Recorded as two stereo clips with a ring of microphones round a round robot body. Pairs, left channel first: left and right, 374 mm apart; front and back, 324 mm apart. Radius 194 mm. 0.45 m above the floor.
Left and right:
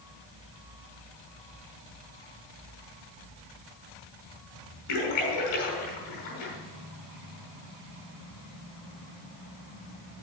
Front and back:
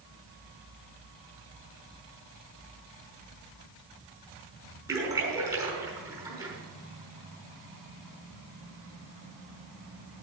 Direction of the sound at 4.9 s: 100° left.